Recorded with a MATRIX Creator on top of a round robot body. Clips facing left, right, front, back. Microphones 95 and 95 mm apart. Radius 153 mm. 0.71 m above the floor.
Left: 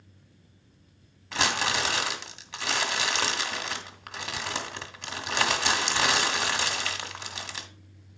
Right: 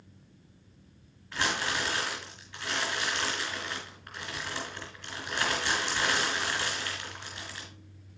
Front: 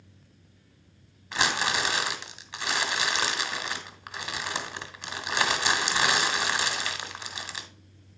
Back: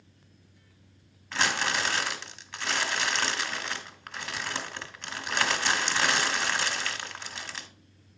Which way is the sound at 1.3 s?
75° left.